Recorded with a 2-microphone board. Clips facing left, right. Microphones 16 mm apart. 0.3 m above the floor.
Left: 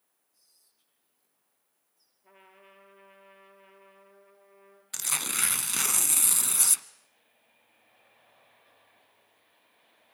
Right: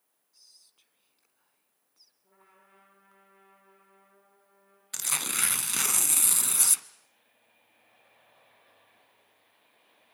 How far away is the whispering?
About 2.5 m.